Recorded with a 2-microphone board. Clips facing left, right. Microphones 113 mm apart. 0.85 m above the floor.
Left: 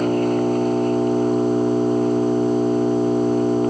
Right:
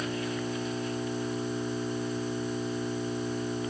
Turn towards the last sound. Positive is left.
turn(degrees=50)  # may be behind; listen again after turning